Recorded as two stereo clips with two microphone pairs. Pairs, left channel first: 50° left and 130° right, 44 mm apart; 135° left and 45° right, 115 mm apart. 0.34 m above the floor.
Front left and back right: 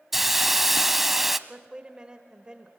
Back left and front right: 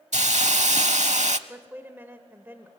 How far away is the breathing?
No breathing in this recording.